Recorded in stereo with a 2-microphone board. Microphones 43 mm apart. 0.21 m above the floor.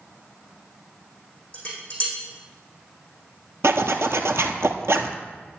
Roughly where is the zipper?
Right.